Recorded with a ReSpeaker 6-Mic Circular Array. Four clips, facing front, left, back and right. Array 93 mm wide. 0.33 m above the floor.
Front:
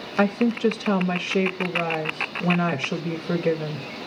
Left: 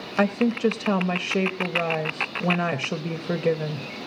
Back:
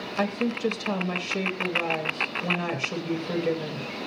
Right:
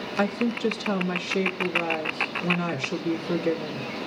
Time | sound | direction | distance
0.2 | a woman speaking | 60° left | 1.0 m